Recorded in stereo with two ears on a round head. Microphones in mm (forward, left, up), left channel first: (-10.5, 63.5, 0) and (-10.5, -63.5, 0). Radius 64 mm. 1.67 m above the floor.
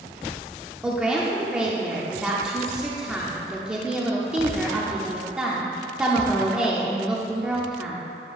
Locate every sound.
0.8 s a woman speaking: 5° right (ahead or behind), 0.5 m